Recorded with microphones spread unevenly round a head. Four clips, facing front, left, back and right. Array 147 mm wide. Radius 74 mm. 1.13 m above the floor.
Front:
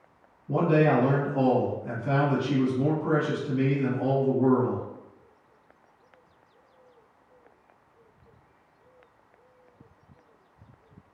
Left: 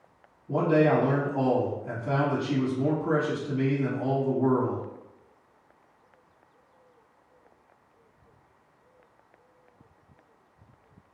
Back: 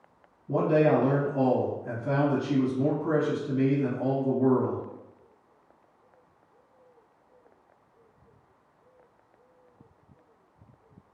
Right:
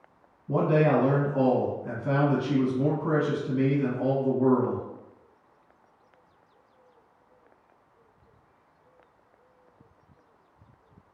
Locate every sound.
0.5 s a man speaking: 90° right, 1.4 m